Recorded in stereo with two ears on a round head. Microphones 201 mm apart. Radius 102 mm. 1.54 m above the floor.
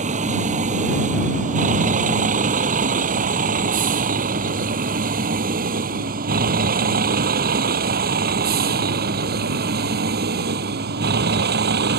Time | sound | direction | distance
0.0 | a vehicle | 30° right (ahead or behind) | ?